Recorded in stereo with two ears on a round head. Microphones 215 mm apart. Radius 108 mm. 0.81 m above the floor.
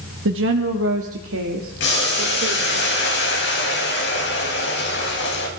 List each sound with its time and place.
0.2 s a woman speaking: 55° right (ahead or behind), 1.3 m; by 2.8 s 65° right (ahead or behind), 3 m
1.8 s boiling: 50° left (ahead or behind), 4 m